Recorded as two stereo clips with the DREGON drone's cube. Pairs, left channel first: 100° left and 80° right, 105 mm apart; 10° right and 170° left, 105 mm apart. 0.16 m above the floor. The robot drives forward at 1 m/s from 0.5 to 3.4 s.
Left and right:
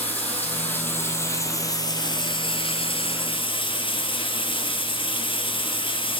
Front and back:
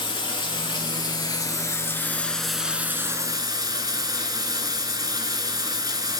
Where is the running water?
25° left, 2.5 m; by 6.2 s 120° left, 1.5 m.